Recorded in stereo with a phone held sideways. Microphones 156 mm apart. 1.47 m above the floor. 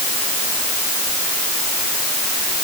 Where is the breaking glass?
I don't hear breaking glass.